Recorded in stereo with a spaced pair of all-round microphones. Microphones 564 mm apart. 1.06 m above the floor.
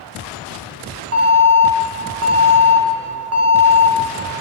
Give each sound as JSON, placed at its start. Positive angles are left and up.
{"t": 1.1, "sound": "an alarm", "side_deg": -25, "distance_m": 1.4}